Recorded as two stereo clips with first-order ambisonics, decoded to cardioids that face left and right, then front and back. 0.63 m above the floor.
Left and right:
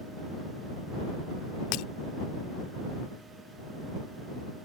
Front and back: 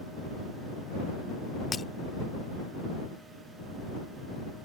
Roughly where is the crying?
I don't hear crying.